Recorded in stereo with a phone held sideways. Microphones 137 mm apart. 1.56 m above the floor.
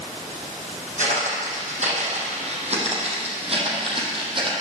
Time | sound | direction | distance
1.0 | footsteps | 65° right (ahead or behind) | 4 m